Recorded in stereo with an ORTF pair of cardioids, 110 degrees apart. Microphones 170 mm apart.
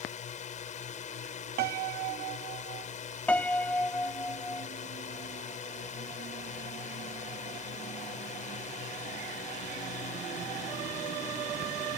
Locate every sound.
0.0 s a drone: 50° left
1.6 s a piano: 65° right
3.3 s a piano: 10° left